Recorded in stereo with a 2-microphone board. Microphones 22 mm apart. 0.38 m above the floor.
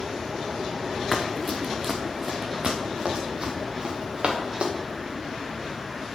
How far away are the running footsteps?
About 1.8 m.